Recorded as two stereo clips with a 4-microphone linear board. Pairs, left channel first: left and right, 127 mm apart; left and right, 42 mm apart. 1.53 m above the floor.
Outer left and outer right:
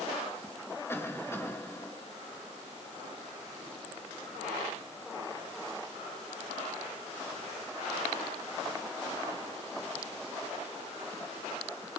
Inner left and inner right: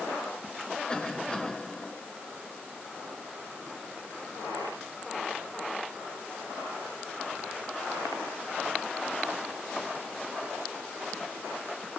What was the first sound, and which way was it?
A cough, 20° left (ahead or behind).